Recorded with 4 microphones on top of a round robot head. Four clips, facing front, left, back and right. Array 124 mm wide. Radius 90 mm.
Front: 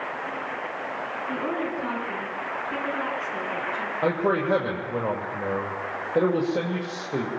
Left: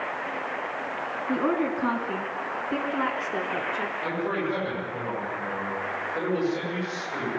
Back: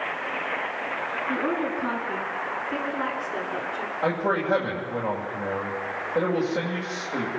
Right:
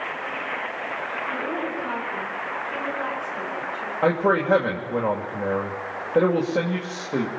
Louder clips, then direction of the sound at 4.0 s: Right 11 dB, front 1 dB; 65° right.